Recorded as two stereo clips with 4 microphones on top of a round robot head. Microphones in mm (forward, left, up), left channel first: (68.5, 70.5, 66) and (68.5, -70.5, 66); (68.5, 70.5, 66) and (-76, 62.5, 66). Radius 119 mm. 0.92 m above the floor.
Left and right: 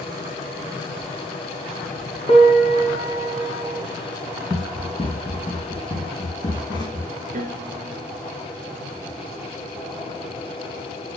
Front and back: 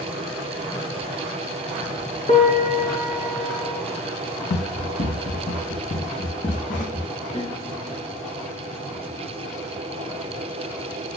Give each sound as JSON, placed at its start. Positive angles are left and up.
{"t": 2.3, "sound": "a piano", "azimuth_deg": 45, "distance_m": 3.0}
{"t": 4.5, "sound": "running footsteps", "azimuth_deg": 0, "distance_m": 2.0}
{"t": 7.3, "sound": "a piano", "azimuth_deg": -60, "distance_m": 4.0}